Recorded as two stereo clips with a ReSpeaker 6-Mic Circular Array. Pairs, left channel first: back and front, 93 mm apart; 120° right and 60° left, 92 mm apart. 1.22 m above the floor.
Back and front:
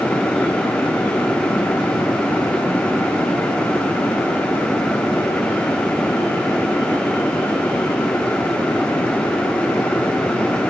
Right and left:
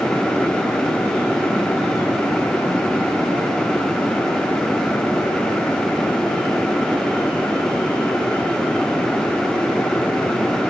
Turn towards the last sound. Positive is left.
No sound to turn to.